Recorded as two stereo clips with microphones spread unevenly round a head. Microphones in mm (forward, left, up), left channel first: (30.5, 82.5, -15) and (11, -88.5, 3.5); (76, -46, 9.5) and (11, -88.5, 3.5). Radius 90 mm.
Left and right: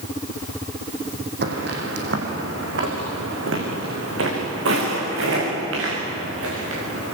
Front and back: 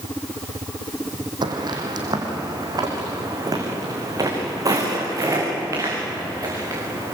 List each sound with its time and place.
1.4 s footsteps: 125° right, 5 m; by 7.2 s 100° right, 11.5 m